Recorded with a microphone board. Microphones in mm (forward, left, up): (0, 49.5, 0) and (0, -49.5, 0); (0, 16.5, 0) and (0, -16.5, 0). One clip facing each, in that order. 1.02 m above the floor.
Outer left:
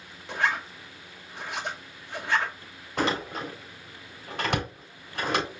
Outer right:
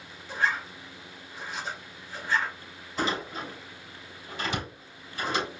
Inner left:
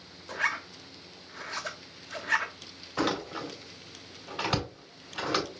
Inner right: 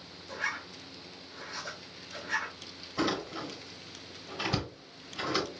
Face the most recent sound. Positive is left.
turn(degrees=60)  # may be behind; listen again after turning